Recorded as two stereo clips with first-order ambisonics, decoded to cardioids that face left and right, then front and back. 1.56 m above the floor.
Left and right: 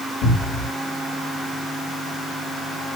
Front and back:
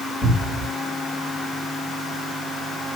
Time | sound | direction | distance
0.2 | a cupboard door | 105° left | 4 m